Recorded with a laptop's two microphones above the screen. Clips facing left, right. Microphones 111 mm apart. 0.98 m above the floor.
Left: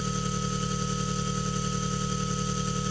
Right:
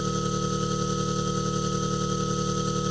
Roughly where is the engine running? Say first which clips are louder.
Right 4 dB; centre.